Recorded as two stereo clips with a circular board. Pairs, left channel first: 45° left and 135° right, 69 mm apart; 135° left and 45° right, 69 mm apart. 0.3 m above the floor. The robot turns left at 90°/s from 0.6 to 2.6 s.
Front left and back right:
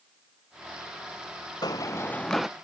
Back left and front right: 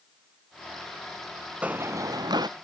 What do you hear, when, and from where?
1.6 s running footsteps: 25° left; by 2.5 s 50° right